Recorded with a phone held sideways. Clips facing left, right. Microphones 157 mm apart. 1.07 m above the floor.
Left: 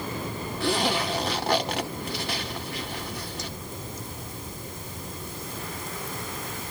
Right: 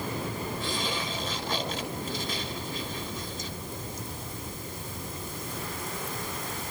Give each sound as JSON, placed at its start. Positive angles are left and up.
{"t": 0.6, "sound": "a zipper", "side_deg": 75, "distance_m": 1.8}